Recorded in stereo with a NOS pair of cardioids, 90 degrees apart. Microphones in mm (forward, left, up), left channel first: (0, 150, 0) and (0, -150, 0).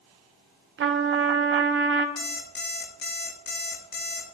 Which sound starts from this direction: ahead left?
An alarm clock, at 2.2 s.